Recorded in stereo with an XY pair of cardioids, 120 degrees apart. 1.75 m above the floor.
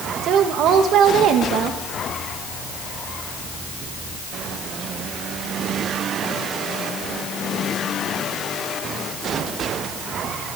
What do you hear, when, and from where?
0.2 s a woman speaking: 70° right, 2 m